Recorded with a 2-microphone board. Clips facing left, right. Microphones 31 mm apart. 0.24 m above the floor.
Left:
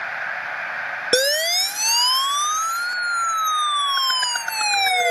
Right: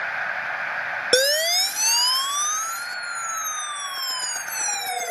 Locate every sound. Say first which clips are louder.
1.1 s a siren: left 1 dB; 5° left (ahead or behind); by 5.1 s 65° left (ahead or behind)